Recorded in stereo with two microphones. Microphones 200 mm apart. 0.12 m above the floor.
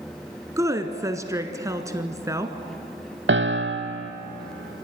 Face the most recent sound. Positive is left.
turn(degrees=-75)  # may be behind; listen again after turning